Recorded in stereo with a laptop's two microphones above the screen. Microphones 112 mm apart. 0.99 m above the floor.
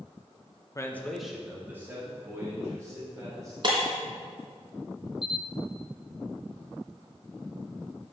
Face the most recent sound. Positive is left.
turn(degrees=45)  # may be behind; listen again after turning